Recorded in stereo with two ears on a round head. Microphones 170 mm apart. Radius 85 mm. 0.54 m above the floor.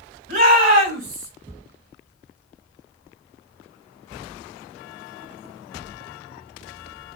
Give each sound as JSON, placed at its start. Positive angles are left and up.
{"t": 0.3, "sound": "a shout", "side_deg": -55, "distance_m": 3.5}